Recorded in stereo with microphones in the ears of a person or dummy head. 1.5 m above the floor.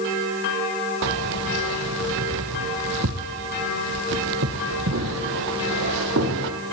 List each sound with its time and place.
1.0 s keys jangling: 60° right (ahead or behind), 0.9 m